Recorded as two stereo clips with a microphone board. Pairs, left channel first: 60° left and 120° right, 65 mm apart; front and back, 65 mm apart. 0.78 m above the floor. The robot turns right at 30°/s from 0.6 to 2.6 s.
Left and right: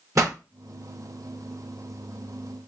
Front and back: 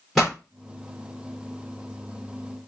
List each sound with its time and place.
0.1 s a pop: 90° right, 2.5 m